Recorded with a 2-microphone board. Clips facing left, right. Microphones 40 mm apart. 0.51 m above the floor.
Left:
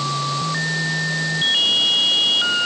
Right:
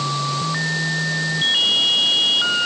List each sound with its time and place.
Only background noise.